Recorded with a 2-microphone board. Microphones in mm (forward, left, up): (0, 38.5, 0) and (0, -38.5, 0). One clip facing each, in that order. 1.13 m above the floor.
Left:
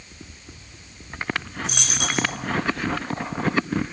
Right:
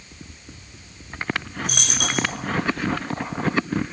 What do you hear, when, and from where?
1.6 s a dropped coin: 55° right (ahead or behind), 6 m